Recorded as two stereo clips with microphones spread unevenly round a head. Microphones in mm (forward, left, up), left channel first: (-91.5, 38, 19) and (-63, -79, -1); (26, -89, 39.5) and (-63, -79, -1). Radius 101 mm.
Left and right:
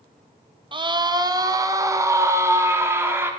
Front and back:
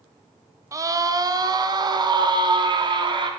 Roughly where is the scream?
Behind right.